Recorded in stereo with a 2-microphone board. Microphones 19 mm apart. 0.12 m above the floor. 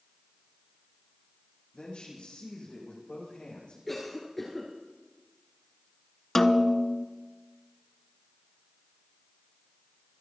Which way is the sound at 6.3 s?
20° left (ahead or behind).